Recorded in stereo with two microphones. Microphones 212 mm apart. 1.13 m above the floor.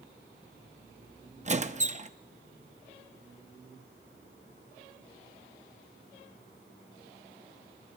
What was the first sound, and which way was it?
A squeak, 35° right (ahead or behind).